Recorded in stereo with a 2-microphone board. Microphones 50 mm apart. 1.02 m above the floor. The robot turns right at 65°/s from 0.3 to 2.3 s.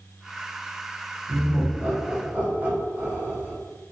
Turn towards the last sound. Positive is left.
turn(degrees=-30)  # may be behind; listen again after turning